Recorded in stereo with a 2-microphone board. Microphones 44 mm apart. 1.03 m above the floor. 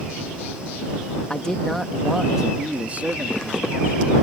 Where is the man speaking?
20° left (ahead or behind); by 4.1 s 55° right (ahead or behind).